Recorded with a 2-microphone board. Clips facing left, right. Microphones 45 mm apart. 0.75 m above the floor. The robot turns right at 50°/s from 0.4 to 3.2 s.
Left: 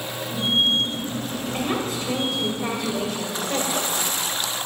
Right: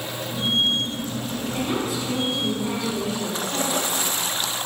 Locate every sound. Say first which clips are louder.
1.5 s a woman speaking: even; 30° left, 3 m; by 4.1 s 115° left, 3 m